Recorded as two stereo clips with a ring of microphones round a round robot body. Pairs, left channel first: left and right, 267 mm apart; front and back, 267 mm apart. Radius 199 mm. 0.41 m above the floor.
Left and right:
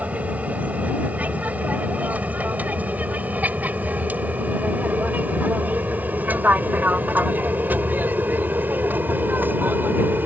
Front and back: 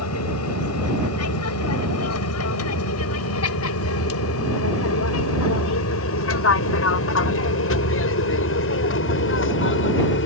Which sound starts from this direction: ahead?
An aircraft, at 0.0 s.